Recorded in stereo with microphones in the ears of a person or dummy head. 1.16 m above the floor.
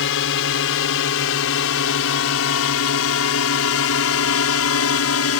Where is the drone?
60° left (ahead or behind); by 5.4 s 65° left (ahead or behind).